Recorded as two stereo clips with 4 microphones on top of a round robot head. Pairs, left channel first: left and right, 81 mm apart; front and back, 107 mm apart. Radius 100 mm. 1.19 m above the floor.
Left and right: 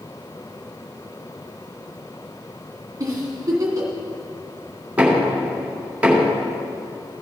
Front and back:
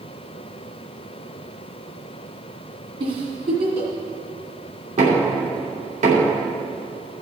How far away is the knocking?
About 3 m.